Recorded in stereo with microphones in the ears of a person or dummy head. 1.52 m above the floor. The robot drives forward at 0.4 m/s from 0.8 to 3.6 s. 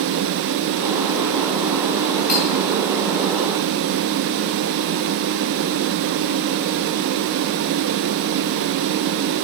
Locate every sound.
2.3 s cutlery clinking: 55° left (ahead or behind), 3.5 m